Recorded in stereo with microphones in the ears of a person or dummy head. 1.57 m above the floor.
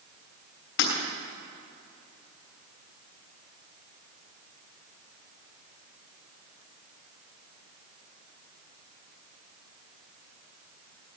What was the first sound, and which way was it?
Breaking glass, 80° left.